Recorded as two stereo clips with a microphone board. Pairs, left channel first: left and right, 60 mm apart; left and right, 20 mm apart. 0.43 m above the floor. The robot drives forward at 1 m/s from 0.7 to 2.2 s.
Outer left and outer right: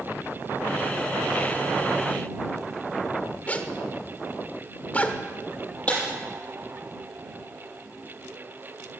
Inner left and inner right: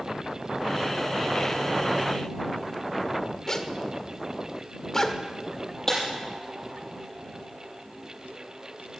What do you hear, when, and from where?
3.5 s a zipper: 25° left (ahead or behind), 1.1 m
5.9 s breaking glass: 25° left (ahead or behind), 8 m